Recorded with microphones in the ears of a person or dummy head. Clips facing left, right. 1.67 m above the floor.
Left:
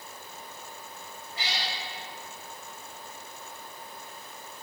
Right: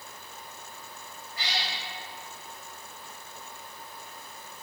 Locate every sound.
1.4 s a cat meowing: 25° left (ahead or behind), 3 m